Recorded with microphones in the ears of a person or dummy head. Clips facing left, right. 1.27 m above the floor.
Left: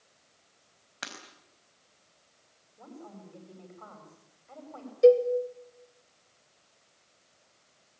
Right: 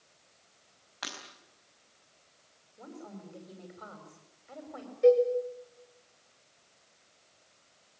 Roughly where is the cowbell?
Left.